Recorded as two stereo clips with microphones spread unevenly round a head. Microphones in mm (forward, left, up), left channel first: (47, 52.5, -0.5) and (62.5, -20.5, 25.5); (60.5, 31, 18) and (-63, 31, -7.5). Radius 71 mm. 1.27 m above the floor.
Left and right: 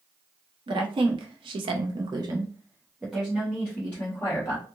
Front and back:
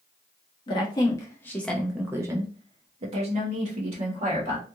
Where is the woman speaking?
60° right, 1.0 m; by 4.7 s 165° left, 1.4 m.